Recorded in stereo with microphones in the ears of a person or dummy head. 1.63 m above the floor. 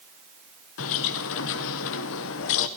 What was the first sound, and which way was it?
A bird, 55° left (ahead or behind).